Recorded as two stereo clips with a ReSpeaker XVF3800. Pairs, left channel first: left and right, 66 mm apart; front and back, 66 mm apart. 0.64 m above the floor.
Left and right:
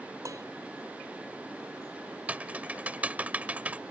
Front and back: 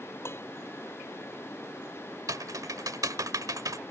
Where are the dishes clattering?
50° right.